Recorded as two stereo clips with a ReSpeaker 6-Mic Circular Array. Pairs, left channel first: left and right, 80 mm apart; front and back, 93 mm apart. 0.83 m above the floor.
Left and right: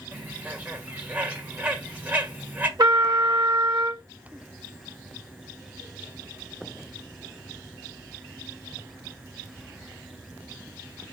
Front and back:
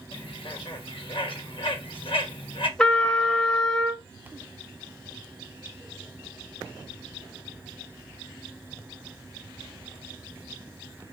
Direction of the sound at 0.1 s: 20° right.